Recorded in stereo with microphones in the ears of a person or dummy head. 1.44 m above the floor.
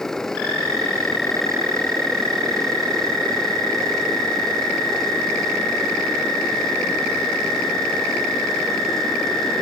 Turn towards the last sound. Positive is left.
turn(degrees=10)  # may be behind; listen again after turning